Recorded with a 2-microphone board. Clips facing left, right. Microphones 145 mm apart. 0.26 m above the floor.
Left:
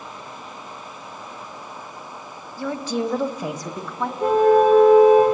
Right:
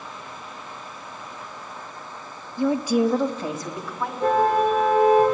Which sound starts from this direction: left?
A car horn, at 4.2 s.